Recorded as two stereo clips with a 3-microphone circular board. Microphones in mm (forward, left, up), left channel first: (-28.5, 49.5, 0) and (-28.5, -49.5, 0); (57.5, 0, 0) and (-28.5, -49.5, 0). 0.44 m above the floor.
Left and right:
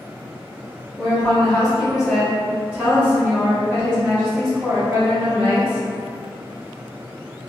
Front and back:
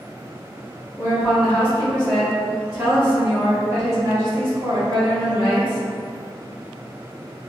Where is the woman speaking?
20° left, 1.5 m; by 5.9 s 140° right, 2.5 m.